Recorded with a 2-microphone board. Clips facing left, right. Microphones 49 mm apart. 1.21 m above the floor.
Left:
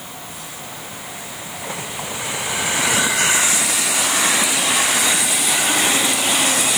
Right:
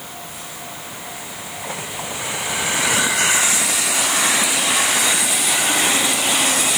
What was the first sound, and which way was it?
Only background noise.